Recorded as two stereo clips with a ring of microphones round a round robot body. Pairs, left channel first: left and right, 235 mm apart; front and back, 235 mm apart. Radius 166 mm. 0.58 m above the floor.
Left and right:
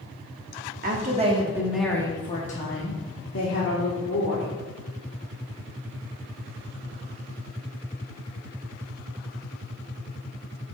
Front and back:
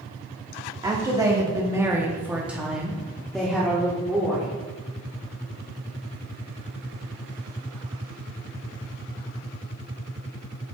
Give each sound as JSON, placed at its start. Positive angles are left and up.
{"t": 0.8, "sound": "a woman speaking", "azimuth_deg": -115, "distance_m": 1.0}